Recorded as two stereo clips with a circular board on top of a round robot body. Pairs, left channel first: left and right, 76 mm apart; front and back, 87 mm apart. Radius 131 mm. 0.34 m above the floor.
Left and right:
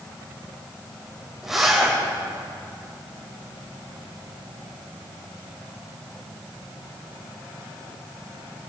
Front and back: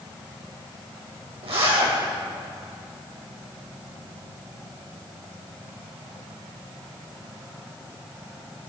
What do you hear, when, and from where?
1.4 s a zipper: 175° right, 4.5 m